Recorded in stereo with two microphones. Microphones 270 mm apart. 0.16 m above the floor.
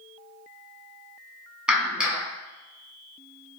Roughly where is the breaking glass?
No breaking glass in this recording.